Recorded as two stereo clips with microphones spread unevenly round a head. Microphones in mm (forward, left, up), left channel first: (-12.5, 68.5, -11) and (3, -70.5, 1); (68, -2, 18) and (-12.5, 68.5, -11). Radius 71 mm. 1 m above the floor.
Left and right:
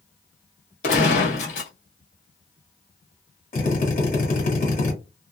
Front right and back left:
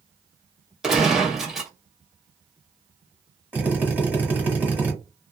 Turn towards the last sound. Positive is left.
turn(degrees=60)